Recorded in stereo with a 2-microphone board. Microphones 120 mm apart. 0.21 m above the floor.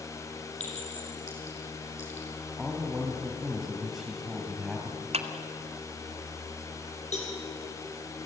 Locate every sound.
0.6 s a clink: 75° left (ahead or behind), 6 m
2.6 s a man speaking: centre (ahead or behind), 3.5 m
5.1 s a clap: 60° right (ahead or behind), 1.9 m
7.1 s a cowbell: 75° left (ahead or behind), 6.5 m